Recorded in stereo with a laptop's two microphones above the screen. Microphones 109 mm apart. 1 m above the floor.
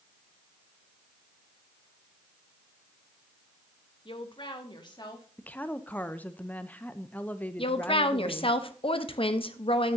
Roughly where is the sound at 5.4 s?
Centre.